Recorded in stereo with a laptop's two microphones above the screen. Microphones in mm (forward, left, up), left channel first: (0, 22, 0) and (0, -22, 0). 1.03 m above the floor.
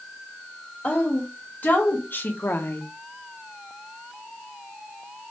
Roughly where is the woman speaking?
Left.